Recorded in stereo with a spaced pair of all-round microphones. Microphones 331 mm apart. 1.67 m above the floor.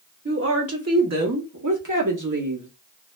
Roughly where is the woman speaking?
Right.